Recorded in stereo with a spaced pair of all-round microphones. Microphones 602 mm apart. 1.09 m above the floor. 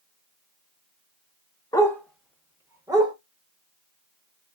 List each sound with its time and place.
1.7 s a dog barking: 5° left (ahead or behind), 0.7 m; by 3.1 s 5° right (ahead or behind), 1.1 m